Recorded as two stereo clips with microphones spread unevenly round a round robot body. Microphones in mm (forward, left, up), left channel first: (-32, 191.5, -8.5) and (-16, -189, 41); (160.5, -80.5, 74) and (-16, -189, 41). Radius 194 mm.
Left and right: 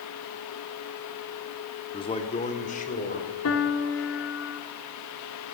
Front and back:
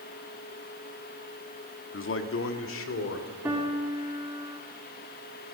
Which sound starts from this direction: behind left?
A piano, at 3.5 s.